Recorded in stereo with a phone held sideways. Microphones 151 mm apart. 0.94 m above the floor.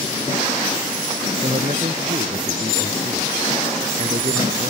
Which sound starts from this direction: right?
A man speaking, at 1.4 s.